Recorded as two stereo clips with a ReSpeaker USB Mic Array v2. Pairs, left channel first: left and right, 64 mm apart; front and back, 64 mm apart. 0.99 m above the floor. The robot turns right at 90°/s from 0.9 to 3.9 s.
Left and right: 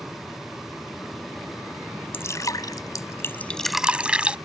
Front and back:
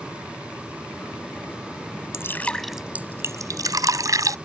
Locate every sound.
2.1 s dripping: 40° left; by 4.3 s 160° right